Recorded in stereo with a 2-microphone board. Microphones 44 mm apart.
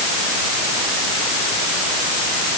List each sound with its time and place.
Only background noise.